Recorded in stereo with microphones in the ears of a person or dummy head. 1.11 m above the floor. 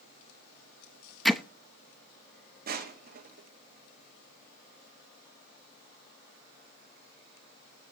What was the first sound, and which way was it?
Hammering, centre (ahead or behind).